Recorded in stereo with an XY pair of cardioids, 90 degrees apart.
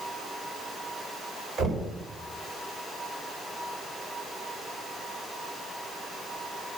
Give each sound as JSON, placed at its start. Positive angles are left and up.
{"t": 1.6, "sound": "knocking", "azimuth_deg": -65, "distance_m": 3.5}